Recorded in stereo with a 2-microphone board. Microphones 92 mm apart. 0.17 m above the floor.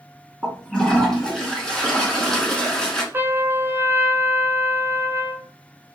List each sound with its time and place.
0.4 s a toilet flushing: 5° left (ahead or behind), 1.5 m
3.1 s a trumpet: 25° right (ahead or behind), 0.7 m